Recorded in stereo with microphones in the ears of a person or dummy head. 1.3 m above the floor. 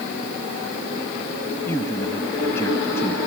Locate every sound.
1.7 s a man speaking: 20° left (ahead or behind)